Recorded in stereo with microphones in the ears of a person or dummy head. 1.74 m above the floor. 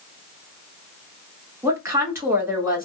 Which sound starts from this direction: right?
A woman speaking, at 1.6 s.